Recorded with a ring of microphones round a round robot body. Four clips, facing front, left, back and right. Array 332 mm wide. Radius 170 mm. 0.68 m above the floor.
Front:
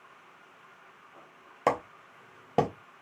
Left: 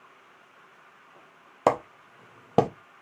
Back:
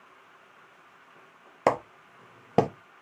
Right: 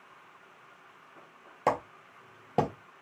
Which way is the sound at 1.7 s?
125° left.